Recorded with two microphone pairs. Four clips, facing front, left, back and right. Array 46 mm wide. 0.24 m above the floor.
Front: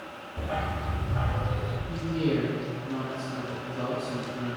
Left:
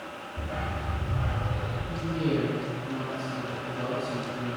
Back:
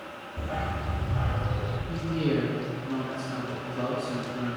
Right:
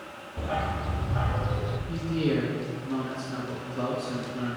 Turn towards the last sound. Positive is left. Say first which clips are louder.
# right 1 dB, even
turn(degrees=-110)